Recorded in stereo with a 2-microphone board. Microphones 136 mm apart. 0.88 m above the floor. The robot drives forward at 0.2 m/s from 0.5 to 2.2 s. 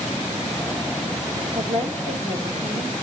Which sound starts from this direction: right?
A woman speaking, at 1.6 s.